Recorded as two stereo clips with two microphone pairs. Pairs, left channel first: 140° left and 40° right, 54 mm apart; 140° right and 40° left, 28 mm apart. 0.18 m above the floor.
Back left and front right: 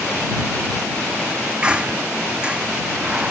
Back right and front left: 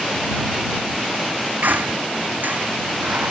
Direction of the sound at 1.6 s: 30° left.